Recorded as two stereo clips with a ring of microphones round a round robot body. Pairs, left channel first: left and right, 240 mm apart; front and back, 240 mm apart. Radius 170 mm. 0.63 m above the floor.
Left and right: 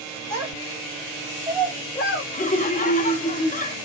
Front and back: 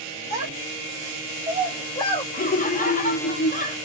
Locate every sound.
0.3 s a child speaking: 125° right, 1.8 m; by 2.2 s 60° left, 1.0 m
2.3 s laughter: 45° left, 0.8 m